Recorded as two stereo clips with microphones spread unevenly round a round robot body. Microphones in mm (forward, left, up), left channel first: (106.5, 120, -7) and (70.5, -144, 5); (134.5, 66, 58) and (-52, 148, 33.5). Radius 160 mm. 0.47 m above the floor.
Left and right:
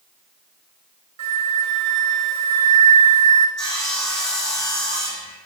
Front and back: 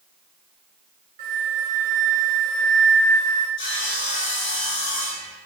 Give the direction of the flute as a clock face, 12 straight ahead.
5 o'clock.